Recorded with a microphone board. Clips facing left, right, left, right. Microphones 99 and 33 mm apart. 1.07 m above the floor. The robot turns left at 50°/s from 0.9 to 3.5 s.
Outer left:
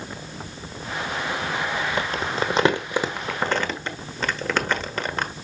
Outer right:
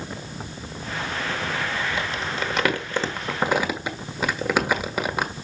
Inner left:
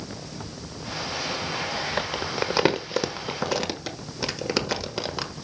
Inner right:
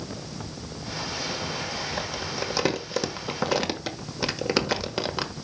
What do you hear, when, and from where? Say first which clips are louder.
2.0 s crumpling: outer left 3 dB, inner left 3 dB; 55° left (ahead or behind), 1.2 m; by 5.3 s 10° right (ahead or behind), 1.2 m